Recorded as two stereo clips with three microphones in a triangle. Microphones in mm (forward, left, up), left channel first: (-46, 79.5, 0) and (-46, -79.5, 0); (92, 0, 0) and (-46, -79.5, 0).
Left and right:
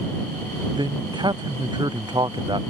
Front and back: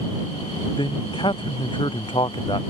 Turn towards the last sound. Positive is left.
turn(degrees=-30)